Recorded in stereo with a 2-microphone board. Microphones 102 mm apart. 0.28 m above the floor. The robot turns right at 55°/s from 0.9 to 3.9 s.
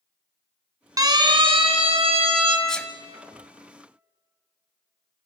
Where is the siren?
35° right (ahead or behind), 3 m; by 2.6 s 55° right (ahead or behind), 4 m.